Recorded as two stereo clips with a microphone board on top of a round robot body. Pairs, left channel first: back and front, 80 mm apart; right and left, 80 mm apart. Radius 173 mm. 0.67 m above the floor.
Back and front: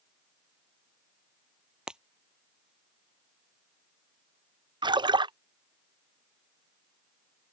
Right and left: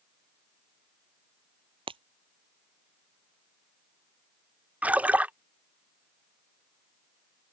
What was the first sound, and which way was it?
Breaking glass, 80° left.